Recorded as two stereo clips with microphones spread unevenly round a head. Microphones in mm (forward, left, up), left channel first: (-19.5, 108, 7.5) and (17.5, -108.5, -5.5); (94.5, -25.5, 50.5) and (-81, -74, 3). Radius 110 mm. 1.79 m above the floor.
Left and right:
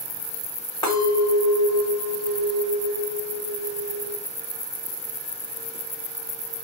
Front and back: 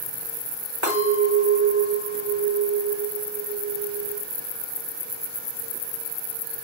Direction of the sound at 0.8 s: 160° left.